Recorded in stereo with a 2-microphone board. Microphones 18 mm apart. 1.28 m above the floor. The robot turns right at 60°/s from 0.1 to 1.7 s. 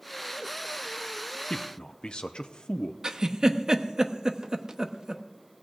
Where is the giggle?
40° right (ahead or behind), 0.9 m.